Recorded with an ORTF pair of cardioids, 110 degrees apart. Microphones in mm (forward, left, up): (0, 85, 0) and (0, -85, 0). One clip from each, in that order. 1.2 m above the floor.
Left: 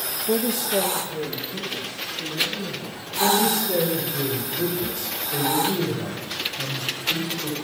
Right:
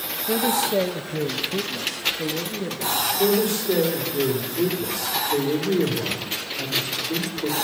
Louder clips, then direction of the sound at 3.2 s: Left 6 dB; 50° right.